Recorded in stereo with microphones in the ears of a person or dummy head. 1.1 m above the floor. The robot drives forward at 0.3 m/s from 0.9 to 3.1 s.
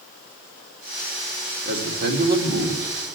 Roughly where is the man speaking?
Right.